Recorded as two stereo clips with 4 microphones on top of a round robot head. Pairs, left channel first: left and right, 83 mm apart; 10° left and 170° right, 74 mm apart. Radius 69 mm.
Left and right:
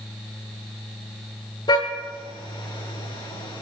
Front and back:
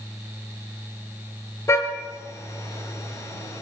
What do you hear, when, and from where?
1.7 s a car horn: 60° left, 8.5 m